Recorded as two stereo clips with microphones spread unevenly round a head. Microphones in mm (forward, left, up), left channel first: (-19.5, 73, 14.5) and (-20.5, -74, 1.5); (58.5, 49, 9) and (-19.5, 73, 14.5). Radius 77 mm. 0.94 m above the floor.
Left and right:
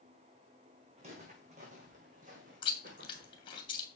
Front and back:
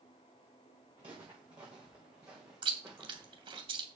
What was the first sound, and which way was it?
Footsteps, 135° right.